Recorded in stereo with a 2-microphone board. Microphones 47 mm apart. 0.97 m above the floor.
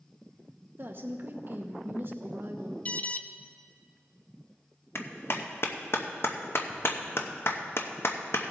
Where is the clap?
60° left (ahead or behind), 0.7 m.